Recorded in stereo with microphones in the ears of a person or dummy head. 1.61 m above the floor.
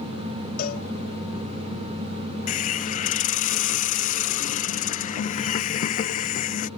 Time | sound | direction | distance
0.6 | a cowbell | 45° left (ahead or behind) | ?
2.5 | a hiss | 45° left (ahead or behind) | ?